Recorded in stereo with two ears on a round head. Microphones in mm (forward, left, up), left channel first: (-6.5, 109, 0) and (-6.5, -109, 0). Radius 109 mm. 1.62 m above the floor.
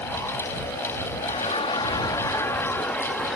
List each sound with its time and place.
1.2 s laughter: 30° left (ahead or behind); by 3.4 s centre (ahead or behind)